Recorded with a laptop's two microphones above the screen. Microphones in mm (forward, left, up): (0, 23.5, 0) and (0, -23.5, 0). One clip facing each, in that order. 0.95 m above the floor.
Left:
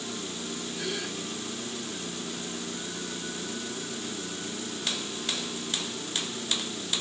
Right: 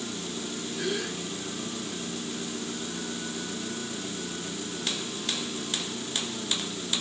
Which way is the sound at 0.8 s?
25° right (ahead or behind).